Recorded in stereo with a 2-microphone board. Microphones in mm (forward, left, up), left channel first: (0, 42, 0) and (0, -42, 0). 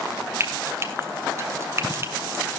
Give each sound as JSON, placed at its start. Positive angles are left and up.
{"t": 0.4, "sound": "frying", "side_deg": -35, "distance_m": 2.5}